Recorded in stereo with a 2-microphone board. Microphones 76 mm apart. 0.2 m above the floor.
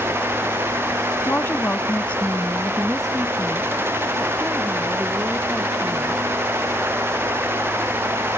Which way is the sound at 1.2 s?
30° left (ahead or behind).